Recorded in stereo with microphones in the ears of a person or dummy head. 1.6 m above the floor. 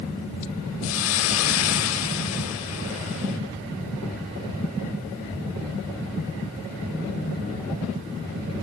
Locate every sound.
0.8 s a hiss: 80° left, 6.5 m